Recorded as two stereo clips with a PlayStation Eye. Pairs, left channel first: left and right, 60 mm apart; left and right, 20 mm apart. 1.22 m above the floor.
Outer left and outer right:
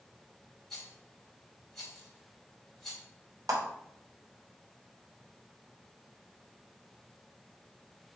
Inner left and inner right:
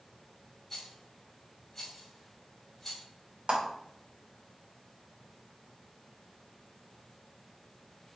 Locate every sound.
0.7 s a rattle: 5° left (ahead or behind), 4.5 m
3.5 s a clap: 85° right, 3.5 m